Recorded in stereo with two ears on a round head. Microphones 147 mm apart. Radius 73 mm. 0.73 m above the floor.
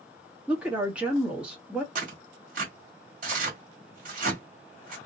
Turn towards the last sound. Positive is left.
turn(degrees=-50)  # may be behind; listen again after turning